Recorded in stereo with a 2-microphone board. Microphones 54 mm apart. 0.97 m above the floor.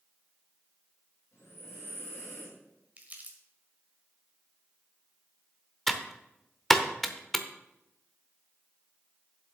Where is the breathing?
55° left (ahead or behind), 6 m.